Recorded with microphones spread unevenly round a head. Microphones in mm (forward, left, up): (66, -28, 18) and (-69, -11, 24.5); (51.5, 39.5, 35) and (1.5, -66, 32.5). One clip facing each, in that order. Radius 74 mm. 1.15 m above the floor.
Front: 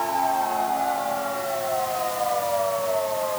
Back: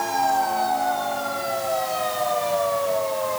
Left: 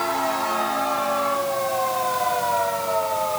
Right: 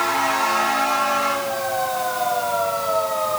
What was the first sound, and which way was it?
Only background noise.